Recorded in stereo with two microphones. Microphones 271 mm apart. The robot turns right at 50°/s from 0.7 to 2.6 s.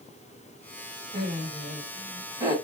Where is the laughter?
95° right, 1.4 m; by 2.6 s 25° right, 1.4 m.